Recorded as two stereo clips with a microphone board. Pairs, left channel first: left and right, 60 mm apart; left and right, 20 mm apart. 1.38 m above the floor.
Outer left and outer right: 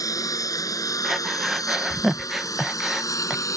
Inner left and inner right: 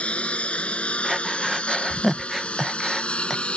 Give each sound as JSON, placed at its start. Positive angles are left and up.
{"t": 0.0, "sound": "a lawn mower", "side_deg": 80}
{"t": 1.0, "sound": "breathing", "side_deg": 0}